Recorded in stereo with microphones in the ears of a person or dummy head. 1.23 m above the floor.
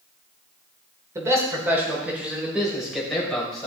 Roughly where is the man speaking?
Centre.